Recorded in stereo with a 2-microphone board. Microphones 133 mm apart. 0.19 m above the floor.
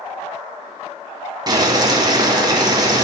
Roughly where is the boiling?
Right.